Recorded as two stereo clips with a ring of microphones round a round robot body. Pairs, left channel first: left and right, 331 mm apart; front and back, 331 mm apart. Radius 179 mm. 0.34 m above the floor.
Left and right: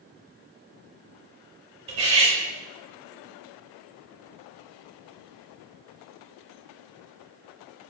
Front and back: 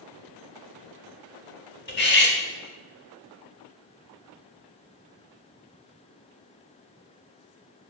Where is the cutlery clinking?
30° right, 0.7 m.